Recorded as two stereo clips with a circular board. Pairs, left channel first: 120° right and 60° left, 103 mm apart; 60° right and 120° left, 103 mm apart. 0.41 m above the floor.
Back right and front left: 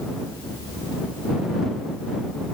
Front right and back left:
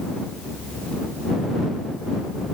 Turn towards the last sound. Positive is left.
No sound to turn to.